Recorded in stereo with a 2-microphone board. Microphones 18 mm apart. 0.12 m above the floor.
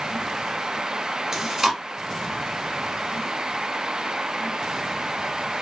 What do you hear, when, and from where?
1.3 s chewing: 30° right (ahead or behind), 1.6 m